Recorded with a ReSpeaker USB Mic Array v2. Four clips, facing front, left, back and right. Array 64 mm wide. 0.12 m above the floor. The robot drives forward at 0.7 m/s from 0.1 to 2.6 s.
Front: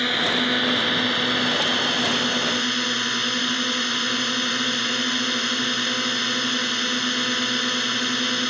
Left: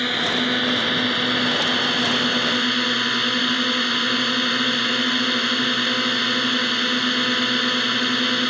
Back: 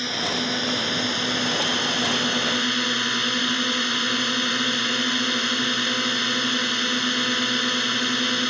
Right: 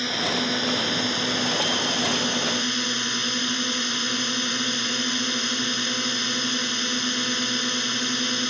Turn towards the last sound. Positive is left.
turn(degrees=95)